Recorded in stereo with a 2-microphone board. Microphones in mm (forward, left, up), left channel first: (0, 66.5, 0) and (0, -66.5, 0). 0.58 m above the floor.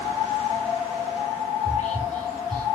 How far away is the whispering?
About 7 m.